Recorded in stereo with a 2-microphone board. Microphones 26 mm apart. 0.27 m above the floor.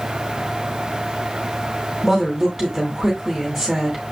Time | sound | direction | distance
2.0 | a woman speaking | 5° left (ahead or behind) | 1.5 m